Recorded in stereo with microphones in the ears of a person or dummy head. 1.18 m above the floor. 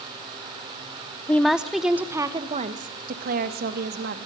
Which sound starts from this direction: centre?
A woman speaking, at 1.3 s.